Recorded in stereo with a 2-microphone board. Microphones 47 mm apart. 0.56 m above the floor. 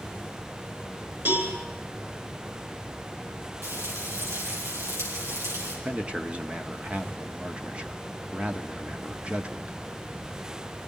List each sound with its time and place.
1.2 s a cowbell: 45° right (ahead or behind), 8 m
3.6 s frying: 70° right (ahead or behind), 9 m
5.8 s a man speaking: 25° right (ahead or behind), 1.2 m